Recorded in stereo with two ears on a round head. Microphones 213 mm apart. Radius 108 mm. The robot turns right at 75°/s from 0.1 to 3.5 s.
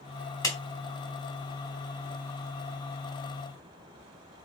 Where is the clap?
15° left (ahead or behind), 3.5 m; by 0.6 s 20° left (ahead or behind), 3.5 m.